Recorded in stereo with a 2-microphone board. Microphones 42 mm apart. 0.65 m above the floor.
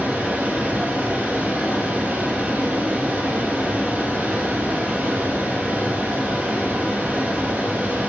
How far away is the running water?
About 1.7 m.